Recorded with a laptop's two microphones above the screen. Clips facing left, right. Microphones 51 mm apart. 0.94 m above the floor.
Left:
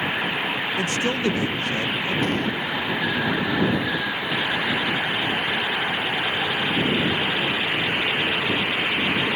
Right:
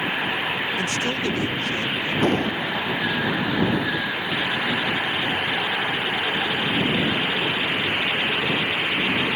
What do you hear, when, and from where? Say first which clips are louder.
0.8 s a man speaking: left 1 dB; 20° left (ahead or behind)
2.2 s an explosion: right 2 dB; 45° right (ahead or behind)